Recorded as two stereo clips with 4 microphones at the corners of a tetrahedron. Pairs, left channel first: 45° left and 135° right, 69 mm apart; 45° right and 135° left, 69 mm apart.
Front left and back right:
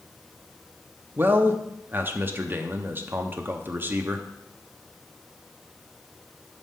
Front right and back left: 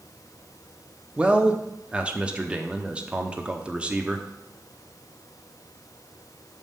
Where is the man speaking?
165° right, 0.7 m.